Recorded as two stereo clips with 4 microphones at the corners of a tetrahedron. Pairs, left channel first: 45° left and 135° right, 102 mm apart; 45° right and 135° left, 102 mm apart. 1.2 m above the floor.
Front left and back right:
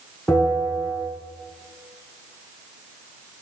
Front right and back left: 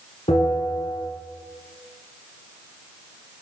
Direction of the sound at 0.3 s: 35° right.